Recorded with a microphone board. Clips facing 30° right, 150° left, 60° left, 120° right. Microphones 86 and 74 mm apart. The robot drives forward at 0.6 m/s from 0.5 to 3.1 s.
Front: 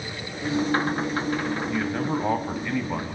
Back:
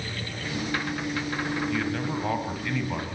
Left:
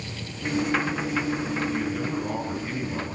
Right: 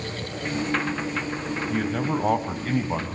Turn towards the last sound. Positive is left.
turn(degrees=-110)